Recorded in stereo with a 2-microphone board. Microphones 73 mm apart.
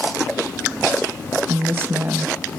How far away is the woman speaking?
About 1.3 m.